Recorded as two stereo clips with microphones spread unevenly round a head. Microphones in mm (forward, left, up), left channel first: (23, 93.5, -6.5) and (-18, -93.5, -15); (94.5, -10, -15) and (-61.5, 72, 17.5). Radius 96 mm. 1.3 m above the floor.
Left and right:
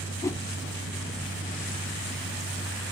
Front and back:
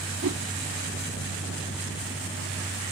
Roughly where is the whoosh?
Behind left.